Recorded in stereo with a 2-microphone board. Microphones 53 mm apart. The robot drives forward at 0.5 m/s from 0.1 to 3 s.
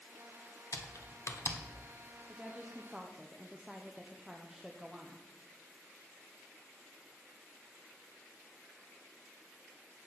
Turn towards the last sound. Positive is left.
turn(degrees=-10)  # may be behind; listen again after turning